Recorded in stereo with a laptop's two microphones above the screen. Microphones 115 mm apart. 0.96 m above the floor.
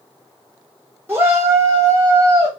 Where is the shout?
20° right (ahead or behind), 1.0 m; by 2.5 s 35° right (ahead or behind), 0.9 m.